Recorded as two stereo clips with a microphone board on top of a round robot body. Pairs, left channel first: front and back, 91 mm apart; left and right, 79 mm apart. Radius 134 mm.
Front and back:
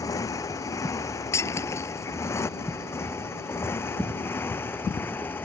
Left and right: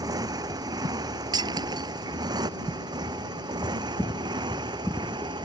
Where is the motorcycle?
50° right; by 5.5 s 65° right.